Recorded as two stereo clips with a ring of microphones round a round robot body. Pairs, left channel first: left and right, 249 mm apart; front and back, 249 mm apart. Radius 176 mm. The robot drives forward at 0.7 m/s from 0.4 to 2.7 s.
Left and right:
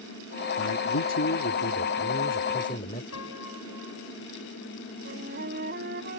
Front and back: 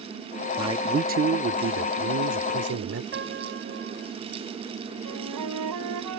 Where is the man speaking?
105° left; by 3.0 s 160° left.